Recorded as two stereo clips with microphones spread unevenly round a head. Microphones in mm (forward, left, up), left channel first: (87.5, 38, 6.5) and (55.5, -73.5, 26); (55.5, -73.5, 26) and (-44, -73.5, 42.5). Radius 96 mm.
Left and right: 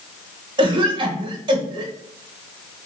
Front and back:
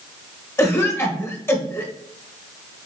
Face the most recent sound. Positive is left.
turn(degrees=-55)